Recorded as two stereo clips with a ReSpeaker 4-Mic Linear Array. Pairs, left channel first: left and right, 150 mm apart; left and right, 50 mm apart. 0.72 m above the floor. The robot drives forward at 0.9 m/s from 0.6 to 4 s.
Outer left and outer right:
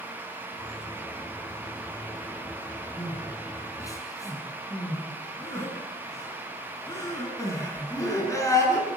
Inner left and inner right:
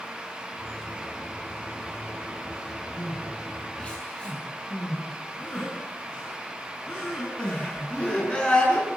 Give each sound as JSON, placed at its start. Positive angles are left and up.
{"t": 3.0, "sound": "crying", "side_deg": 25, "distance_m": 6.0}